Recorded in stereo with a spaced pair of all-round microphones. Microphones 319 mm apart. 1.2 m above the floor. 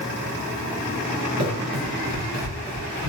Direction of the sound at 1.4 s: 45° right (ahead or behind).